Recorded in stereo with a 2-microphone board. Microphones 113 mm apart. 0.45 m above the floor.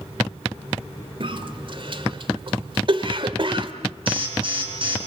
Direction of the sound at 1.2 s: 50° right (ahead or behind).